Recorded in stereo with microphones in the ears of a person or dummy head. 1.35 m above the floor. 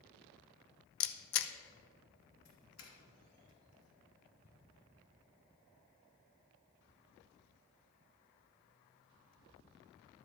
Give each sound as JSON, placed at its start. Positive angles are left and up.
{"t": 1.0, "sound": "a camera shutter", "side_deg": 75, "distance_m": 0.7}
{"t": 2.5, "sound": "a doorbell", "side_deg": 75, "distance_m": 3.0}
{"t": 4.4, "sound": "ticking", "side_deg": 20, "distance_m": 2.0}